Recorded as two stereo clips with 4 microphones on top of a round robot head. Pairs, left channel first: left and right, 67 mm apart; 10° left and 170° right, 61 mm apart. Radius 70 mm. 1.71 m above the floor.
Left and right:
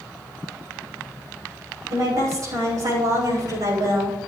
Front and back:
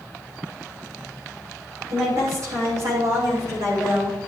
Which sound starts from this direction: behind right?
A woman speaking, at 1.9 s.